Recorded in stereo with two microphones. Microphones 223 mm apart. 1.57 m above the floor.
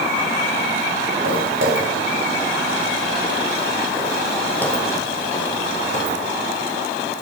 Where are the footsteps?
65° right (ahead or behind), 3.5 m; by 6.2 s 35° left (ahead or behind), 3.5 m.